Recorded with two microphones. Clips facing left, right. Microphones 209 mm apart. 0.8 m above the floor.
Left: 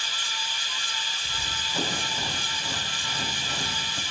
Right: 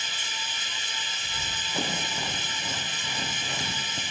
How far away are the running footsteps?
About 7 m.